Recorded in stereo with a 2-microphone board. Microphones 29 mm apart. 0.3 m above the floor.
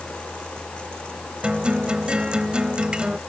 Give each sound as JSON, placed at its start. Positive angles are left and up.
{"t": 1.4, "sound": "a guitar", "side_deg": -35}